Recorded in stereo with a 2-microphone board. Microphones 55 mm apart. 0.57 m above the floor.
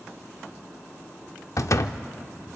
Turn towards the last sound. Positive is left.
turn(degrees=65)  # may be behind; listen again after turning